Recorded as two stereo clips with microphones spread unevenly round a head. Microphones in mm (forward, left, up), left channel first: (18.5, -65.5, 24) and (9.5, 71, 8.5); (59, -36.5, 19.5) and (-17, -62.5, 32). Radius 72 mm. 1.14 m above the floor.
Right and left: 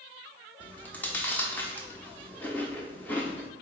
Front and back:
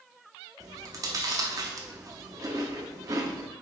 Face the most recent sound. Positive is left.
turn(degrees=-155)